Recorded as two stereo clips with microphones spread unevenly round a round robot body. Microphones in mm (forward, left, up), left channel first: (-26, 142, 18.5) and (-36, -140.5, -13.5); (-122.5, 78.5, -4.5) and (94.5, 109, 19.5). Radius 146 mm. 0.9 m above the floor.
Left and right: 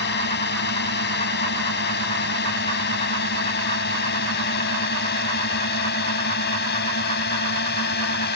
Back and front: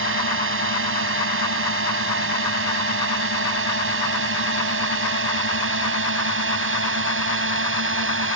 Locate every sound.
0.0 s a drone: 30° left